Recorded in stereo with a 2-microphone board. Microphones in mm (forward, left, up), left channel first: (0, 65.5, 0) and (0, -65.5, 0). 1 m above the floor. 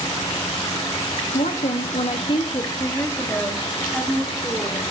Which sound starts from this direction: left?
A woman speaking, at 1.3 s.